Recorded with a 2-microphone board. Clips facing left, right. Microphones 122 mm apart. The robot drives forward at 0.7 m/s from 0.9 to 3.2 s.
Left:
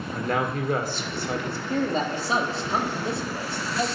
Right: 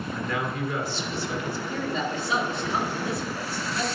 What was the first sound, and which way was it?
A man speaking, 50° left (ahead or behind).